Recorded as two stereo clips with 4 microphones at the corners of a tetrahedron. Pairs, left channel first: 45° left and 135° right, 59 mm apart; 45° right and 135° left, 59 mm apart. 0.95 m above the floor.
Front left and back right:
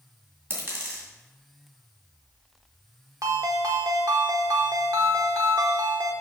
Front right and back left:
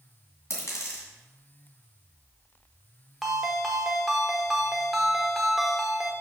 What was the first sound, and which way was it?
A dropped coin, 85° right.